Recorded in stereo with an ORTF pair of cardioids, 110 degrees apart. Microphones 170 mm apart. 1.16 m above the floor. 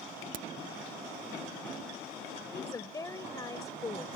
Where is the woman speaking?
20° left.